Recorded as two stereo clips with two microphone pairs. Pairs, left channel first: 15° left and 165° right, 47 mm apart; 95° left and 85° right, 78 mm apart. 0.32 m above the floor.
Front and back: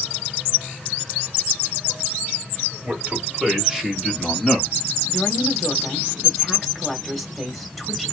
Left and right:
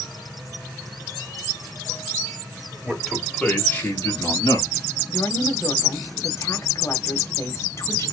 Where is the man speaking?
160° right, 1.5 m; by 4.7 s 95° left, 2.5 m.